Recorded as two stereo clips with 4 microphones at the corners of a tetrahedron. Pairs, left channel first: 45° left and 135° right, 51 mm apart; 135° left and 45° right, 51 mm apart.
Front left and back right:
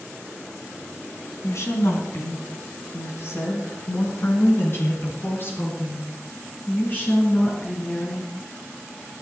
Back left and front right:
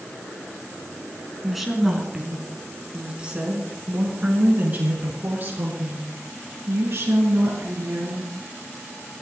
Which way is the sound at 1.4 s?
45° left.